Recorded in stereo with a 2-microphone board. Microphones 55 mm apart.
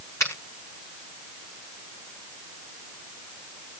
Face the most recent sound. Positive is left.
turn(degrees=60)  # may be behind; listen again after turning